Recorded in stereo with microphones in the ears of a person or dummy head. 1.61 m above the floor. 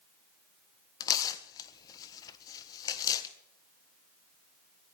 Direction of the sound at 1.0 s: 20° left (ahead or behind).